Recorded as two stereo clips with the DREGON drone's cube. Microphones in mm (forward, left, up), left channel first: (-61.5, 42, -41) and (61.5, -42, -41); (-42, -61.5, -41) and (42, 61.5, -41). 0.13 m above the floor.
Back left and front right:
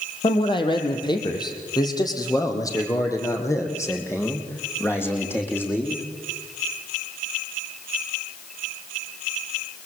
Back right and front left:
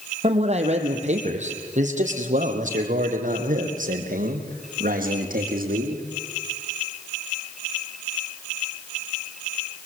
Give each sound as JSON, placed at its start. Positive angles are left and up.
{"t": 0.2, "sound": "a man speaking", "azimuth_deg": 95, "distance_m": 3.5}